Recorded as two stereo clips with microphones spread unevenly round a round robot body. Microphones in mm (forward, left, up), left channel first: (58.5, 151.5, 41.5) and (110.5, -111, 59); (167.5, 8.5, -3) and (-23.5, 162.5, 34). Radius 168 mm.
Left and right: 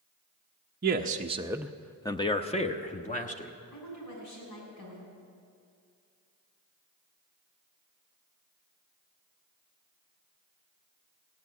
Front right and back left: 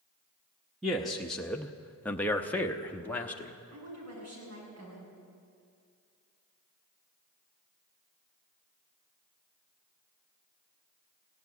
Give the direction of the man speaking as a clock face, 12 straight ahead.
4 o'clock.